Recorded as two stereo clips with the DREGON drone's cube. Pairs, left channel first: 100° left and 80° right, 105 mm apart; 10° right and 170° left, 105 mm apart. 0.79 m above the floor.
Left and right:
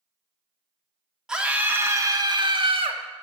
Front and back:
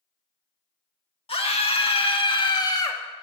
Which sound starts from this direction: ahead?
A scream, at 1.3 s.